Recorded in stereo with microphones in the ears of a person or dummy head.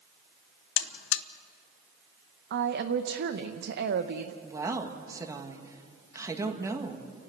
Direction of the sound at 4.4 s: 10° right (ahead or behind).